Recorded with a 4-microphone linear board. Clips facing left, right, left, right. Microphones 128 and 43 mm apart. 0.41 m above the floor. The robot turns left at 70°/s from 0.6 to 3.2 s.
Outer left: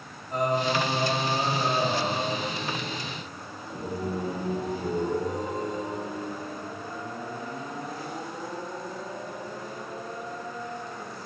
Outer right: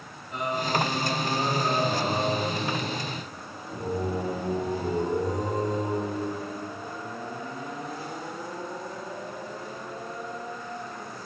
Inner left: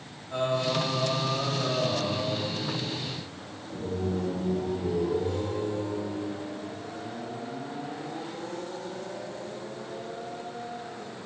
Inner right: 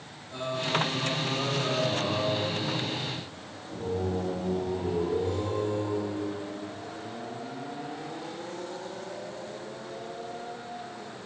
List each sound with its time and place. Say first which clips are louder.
0.3 s singing: outer left 3 dB, inner left 3 dB; 85° left, 1.7 m; by 6.8 s 95° right, 1.7 m